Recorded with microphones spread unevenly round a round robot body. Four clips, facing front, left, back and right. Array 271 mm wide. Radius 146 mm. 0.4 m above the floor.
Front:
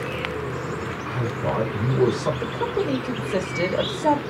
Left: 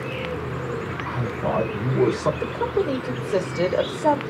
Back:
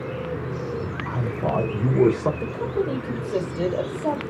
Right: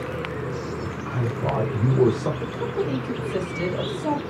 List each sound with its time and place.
0.8 s a man speaking: 165° right, 2.5 m; by 2.3 s straight behind, 1.6 m
2.4 s a woman speaking: 75° left, 1.4 m